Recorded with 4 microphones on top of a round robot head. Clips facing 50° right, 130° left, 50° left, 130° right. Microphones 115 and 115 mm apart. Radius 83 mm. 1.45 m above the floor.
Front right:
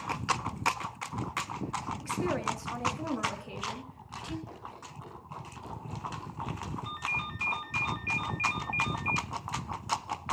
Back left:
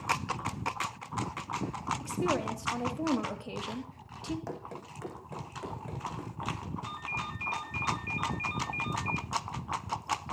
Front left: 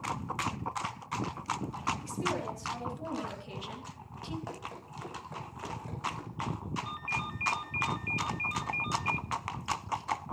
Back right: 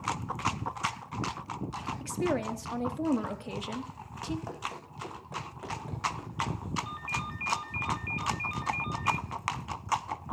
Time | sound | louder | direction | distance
2.0 | a woman speaking | back left 1 dB, back right 4 dB | 155° right | 4 m
4.5 | running footsteps | back left 4 dB, back right 3 dB | 150° left | 5 m
6.8 | a ringtone | front right 1 dB, even | 5° right | 1.0 m